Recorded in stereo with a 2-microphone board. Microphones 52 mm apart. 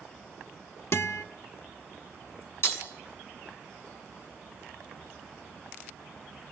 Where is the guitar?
60° left (ahead or behind), 1.3 m.